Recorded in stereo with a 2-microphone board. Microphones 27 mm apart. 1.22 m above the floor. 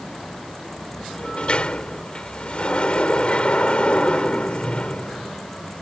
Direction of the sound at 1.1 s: 40° left (ahead or behind).